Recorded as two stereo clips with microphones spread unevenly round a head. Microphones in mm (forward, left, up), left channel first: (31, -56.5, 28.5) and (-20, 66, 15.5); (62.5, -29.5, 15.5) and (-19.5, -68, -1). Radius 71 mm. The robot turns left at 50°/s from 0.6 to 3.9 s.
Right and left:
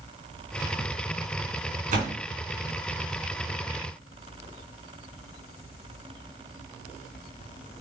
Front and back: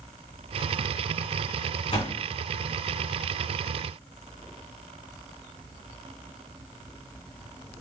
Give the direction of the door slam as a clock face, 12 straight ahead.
9 o'clock.